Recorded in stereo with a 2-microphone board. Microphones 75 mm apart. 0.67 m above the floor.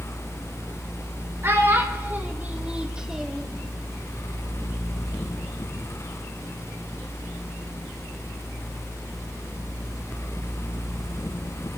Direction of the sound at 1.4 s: 35° right (ahead or behind).